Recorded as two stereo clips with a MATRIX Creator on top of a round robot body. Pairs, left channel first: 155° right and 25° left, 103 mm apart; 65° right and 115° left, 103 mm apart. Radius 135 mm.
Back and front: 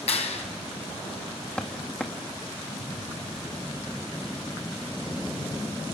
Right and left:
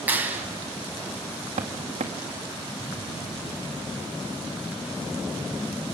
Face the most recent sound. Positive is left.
turn(degrees=120)